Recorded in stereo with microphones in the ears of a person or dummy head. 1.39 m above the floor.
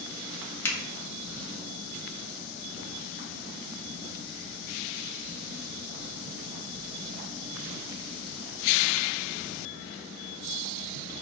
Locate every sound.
0.7 s a finger snap: 20° left (ahead or behind), 0.9 m